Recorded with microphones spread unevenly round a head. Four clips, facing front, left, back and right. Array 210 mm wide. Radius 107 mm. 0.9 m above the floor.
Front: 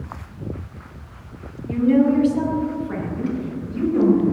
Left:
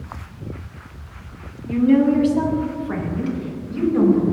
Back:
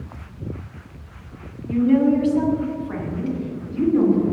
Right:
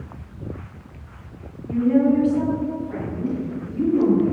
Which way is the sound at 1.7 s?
80° left.